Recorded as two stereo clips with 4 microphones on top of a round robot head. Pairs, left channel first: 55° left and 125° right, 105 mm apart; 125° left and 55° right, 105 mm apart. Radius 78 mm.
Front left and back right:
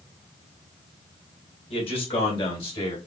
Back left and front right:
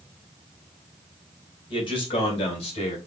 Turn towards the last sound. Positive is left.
turn(degrees=95)